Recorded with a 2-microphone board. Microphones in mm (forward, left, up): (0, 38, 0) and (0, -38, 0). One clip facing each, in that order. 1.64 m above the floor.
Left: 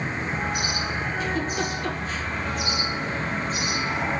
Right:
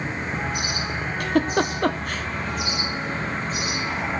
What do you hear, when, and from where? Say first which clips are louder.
1.2 s a giggle: right 9 dB; 65° right (ahead or behind), 1.1 m